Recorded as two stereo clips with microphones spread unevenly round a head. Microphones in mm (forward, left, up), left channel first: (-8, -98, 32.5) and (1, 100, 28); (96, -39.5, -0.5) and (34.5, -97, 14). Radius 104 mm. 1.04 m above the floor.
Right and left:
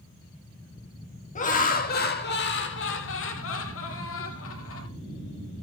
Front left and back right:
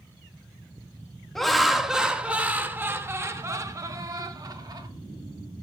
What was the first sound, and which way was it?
Laughter, 40° right.